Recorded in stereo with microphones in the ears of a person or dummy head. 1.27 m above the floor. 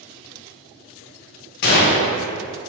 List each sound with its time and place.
1.6 s a gunshot: 55° left (ahead or behind), 0.6 m